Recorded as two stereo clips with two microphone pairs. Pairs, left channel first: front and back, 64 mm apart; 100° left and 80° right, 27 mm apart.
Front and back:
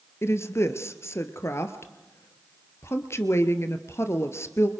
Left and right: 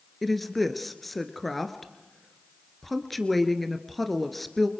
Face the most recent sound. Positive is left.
turn(degrees=15)